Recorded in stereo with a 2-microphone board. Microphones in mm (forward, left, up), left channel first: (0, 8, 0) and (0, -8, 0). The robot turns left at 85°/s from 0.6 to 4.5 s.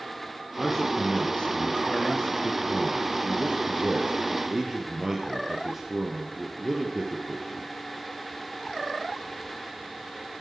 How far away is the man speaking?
About 4.5 m.